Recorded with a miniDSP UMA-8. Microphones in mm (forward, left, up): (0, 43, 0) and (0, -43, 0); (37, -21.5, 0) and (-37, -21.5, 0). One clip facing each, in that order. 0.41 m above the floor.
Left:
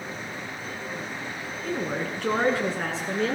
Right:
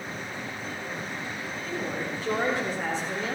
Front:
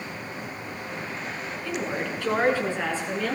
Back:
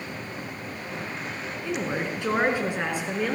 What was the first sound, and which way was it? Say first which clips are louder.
A woman speaking: left 4 dB, back 1 dB; 110° left.